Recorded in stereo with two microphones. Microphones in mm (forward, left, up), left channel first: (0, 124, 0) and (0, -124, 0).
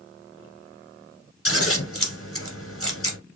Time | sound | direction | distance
1.4 | scissors | 60° left (ahead or behind) | 1.4 m